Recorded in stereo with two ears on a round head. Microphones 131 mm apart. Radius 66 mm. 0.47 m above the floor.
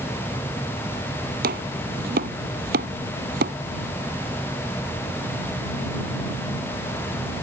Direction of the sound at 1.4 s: 70° right (ahead or behind).